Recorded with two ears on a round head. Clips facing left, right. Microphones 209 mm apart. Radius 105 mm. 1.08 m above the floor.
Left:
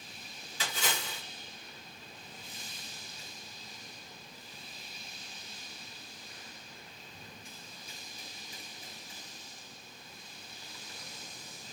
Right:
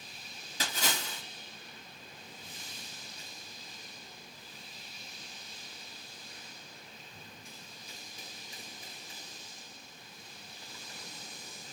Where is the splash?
35° right (ahead or behind), 1.5 m.